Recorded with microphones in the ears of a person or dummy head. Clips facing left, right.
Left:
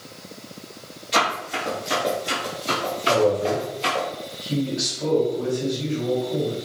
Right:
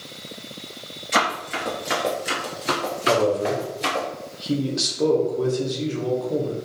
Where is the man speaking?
65° right (ahead or behind), 1.2 m.